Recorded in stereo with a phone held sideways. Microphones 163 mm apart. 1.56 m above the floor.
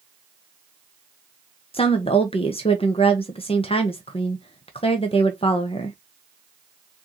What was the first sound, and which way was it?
A woman speaking, 35° left (ahead or behind).